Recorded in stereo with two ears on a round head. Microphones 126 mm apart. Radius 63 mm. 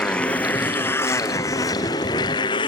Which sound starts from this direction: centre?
A motorcycle, at 0.0 s.